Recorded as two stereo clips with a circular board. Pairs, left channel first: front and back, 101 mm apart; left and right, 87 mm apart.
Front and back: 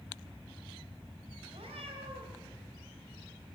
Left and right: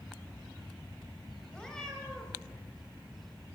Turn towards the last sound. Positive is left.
turn(degrees=170)